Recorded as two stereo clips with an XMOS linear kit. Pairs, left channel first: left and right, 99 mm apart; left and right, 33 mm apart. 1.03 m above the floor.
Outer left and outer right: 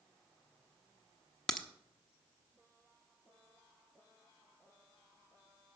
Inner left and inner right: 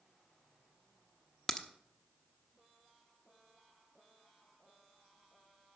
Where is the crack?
10° left (ahead or behind), 0.9 m.